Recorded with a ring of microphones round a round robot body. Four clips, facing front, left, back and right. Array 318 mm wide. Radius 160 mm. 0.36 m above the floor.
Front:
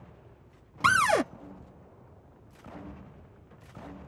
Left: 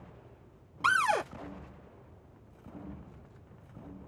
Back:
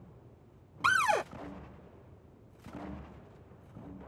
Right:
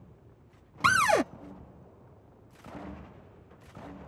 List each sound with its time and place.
0.8 s a cupboard door: 45° right